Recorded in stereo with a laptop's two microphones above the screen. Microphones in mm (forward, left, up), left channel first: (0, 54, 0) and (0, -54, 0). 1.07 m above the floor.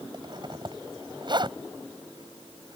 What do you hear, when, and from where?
0.1 s a zipper: 45° right (ahead or behind)